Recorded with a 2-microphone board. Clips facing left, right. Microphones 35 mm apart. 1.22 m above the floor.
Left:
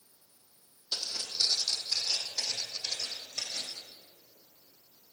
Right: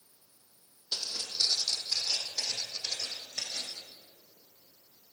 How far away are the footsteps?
About 1.8 m.